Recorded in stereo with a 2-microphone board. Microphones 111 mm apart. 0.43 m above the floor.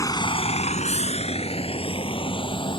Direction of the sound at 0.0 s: 30° left (ahead or behind).